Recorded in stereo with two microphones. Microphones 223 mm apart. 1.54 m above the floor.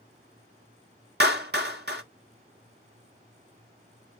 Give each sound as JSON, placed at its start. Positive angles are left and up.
{"t": 1.2, "sound": "a clap", "side_deg": -50, "distance_m": 0.9}